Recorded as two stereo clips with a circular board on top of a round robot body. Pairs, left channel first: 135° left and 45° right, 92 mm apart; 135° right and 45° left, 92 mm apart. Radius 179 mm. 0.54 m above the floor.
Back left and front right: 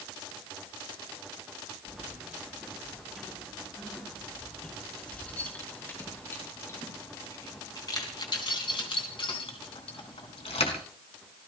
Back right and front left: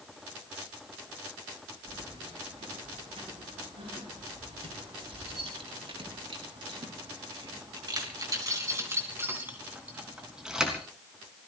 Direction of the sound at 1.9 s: 40° left.